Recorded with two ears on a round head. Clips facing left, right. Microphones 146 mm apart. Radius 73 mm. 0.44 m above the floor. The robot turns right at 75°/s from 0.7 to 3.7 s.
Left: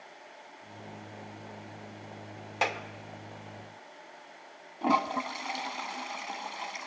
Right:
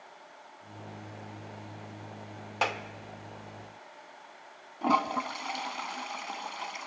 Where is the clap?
5° left (ahead or behind), 1.1 m; by 2.8 s centre (ahead or behind), 1.1 m.